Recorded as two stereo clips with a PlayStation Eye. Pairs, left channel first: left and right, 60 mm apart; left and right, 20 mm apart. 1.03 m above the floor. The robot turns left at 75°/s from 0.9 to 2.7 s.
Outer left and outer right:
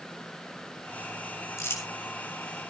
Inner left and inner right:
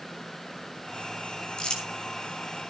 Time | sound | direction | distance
1.6 | crumpling | 55° left (ahead or behind) | 3.5 m